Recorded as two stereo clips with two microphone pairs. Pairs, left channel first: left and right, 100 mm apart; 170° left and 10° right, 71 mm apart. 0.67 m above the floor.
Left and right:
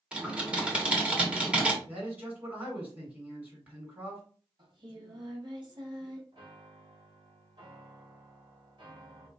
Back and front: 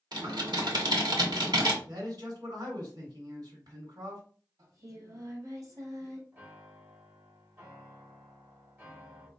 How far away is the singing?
About 1.4 m.